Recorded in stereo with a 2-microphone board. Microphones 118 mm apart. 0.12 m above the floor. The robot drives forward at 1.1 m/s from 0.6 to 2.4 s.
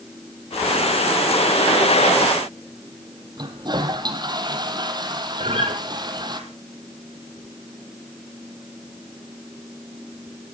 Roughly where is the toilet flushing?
Right.